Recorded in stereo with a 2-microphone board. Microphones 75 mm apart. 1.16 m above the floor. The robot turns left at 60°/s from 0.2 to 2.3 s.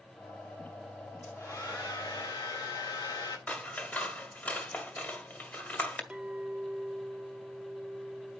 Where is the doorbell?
I don't hear a doorbell.